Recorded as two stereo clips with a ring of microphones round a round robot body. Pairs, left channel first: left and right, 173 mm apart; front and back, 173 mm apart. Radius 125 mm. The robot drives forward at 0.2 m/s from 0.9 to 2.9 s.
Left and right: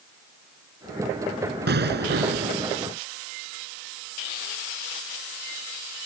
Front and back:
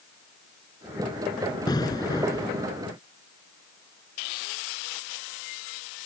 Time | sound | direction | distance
1.7 | an explosion | 75° right | ?